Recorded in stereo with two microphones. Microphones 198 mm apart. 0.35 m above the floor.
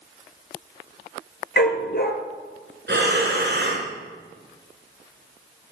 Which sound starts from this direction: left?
A dog barking, at 1.6 s.